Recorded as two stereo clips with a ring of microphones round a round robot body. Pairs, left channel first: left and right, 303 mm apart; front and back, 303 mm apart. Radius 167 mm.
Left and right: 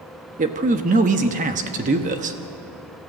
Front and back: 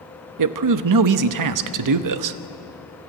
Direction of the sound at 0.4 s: 160° right.